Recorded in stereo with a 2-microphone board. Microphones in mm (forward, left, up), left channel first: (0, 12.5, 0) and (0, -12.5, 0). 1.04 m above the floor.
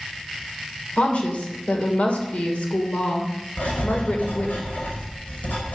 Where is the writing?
75° left (ahead or behind), 4.5 m.